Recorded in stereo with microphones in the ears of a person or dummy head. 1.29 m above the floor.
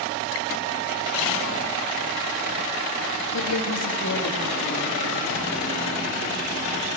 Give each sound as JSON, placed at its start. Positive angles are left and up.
{"t": 3.3, "sound": "a woman speaking", "side_deg": 80, "distance_m": 2.5}